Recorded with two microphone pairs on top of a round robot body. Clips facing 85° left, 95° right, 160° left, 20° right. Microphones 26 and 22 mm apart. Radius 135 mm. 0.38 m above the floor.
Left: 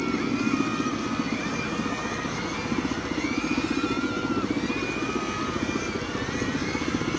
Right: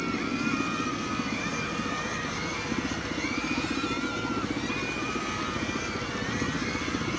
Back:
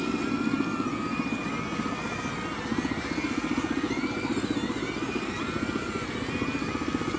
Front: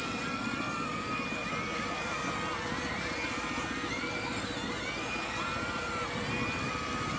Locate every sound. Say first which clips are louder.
0.0 s a helicopter: left 3 dB, back 6 dB; 140° left